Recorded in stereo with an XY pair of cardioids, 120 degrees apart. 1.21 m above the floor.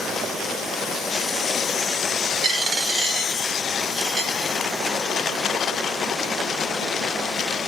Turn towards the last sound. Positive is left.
turn(degrees=-65)